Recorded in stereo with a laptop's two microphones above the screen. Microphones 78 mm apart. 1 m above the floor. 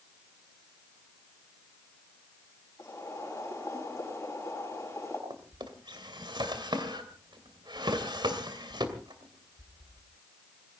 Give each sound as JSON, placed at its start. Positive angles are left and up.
{"t": 2.8, "sound": "boiling", "side_deg": 35, "distance_m": 5.0}
{"t": 5.3, "sound": "a drawer", "side_deg": -70, "distance_m": 2.5}